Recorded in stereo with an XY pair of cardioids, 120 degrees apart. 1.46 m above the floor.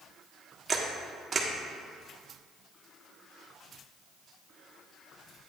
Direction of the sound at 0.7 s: 30° right.